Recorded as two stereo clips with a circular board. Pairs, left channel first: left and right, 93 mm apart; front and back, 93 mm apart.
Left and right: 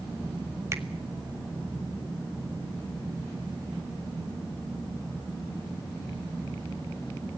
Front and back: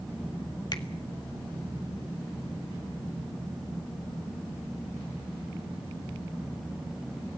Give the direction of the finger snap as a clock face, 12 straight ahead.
1 o'clock.